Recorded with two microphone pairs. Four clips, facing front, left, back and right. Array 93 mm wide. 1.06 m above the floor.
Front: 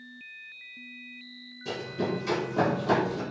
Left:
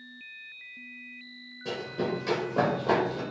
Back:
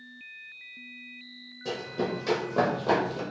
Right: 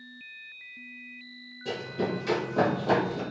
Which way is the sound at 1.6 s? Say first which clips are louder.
Even, even; 170° left.